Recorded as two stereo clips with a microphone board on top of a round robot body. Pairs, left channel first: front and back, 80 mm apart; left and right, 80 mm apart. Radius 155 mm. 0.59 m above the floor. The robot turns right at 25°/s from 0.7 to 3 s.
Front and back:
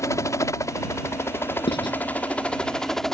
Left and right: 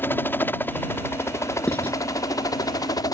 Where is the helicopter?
35° left; by 3.1 s 85° left.